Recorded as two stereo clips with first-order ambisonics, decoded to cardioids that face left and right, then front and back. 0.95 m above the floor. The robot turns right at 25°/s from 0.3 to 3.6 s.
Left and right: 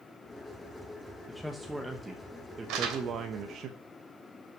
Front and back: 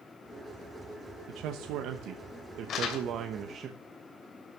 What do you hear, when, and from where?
1.3 s a man speaking: 175° left, 1.0 m; by 3.7 s 125° right, 1.0 m
2.7 s crumpling: 55° right, 3 m; by 3.0 s 45° right, 3 m